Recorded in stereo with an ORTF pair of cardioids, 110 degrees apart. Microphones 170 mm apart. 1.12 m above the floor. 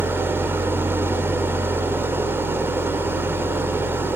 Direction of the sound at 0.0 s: 15° right.